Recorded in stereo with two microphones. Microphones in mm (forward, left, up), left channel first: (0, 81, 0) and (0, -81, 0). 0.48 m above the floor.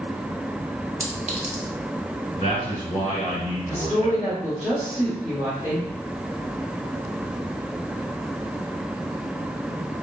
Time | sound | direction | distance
1.0 | a clink | 45° right (ahead or behind) | 0.8 m
2.4 | a man speaking | 45° left (ahead or behind) | 1.4 m
3.7 | a woman speaking | 10° right (ahead or behind) | 1.4 m